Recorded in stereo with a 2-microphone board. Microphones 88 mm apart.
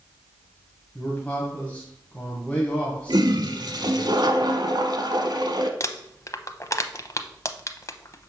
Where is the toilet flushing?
60° right (ahead or behind), 0.9 m.